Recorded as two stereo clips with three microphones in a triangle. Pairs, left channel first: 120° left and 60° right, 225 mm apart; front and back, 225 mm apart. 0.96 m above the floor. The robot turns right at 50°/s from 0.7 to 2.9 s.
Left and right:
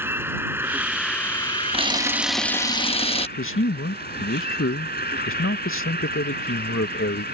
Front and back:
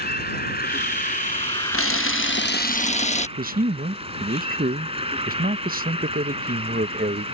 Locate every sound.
0.0 s an insect: 15° left; by 7.3 s 125° left
1.7 s a camera shutter: straight ahead; by 3.3 s 60° left
3.4 s a man speaking: 130° left